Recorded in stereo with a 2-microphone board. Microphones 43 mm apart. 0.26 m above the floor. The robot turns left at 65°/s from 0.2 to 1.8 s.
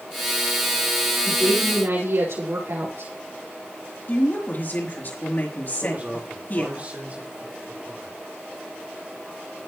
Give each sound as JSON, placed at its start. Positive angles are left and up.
{"t": 1.2, "sound": "a woman speaking", "azimuth_deg": -55, "distance_m": 6.5}
{"t": 4.1, "sound": "a woman speaking", "side_deg": 45, "distance_m": 4.0}
{"t": 5.8, "sound": "a man speaking", "side_deg": -35, "distance_m": 4.0}